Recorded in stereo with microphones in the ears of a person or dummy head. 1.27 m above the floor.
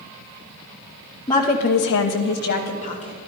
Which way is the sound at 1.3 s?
20° left (ahead or behind).